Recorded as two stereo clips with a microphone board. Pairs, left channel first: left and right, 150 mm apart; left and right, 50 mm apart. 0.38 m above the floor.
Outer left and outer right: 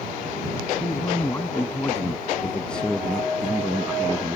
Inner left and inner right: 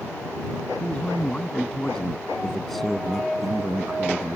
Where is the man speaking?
25° left (ahead or behind); by 4.4 s 10° right (ahead or behind).